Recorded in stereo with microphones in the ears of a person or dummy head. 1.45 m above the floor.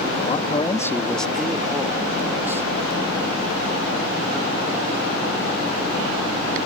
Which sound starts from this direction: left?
A man speaking, at 0.2 s.